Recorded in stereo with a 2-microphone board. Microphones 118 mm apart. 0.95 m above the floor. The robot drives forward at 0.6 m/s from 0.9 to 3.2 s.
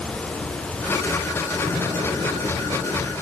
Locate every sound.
1.6 s an explosion: 30° right (ahead or behind), 6.5 m; by 3.1 s 35° right (ahead or behind), 5.5 m